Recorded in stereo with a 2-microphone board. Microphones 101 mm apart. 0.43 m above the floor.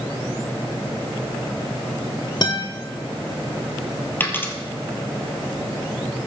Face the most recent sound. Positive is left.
turn(degrees=20)  # may be behind; listen again after turning